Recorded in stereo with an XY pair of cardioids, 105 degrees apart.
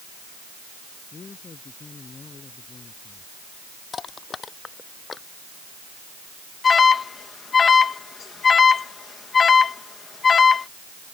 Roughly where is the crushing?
Ahead left.